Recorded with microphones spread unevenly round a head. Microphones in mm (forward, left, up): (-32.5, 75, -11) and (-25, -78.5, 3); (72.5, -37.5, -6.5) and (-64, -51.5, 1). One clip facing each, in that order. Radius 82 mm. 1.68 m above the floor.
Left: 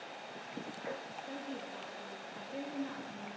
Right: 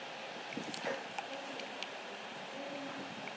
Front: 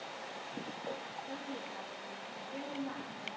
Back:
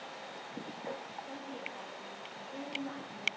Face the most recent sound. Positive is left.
turn(degrees=75)